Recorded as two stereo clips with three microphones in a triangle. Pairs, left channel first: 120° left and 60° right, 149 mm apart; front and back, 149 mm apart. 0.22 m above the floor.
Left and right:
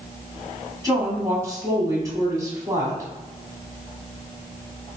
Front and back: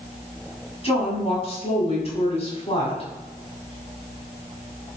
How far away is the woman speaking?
About 1.4 m.